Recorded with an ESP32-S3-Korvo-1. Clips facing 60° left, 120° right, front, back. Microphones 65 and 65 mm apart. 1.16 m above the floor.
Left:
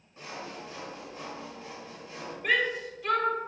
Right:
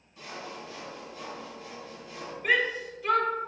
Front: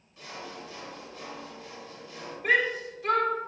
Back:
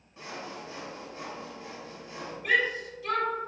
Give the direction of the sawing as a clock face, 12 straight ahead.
8 o'clock.